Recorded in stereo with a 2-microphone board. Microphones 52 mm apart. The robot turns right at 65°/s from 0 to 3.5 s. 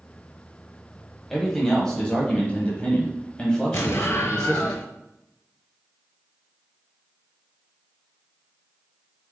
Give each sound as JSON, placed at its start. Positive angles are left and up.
{"t": 1.3, "sound": "a man speaking", "side_deg": 0, "distance_m": 1.0}
{"t": 3.7, "sound": "an explosion", "side_deg": 65, "distance_m": 0.6}